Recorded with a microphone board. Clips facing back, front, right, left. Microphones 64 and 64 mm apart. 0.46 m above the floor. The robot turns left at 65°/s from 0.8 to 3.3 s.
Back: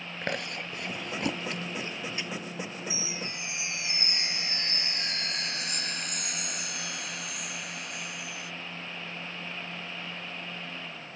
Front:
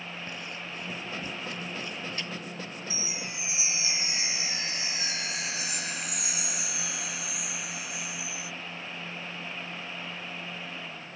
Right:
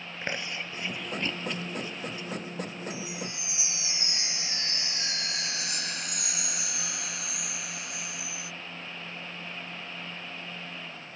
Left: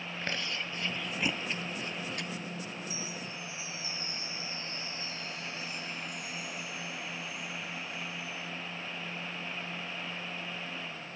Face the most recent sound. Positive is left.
turn(degrees=-85)